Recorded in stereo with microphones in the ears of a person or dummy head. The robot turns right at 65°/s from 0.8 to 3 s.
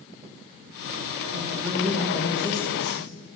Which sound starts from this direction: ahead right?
A man speaking, at 1.3 s.